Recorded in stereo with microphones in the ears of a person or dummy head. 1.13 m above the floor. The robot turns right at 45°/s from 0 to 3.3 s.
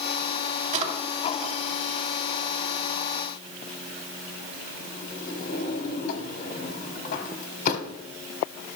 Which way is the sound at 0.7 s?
50° right (ahead or behind).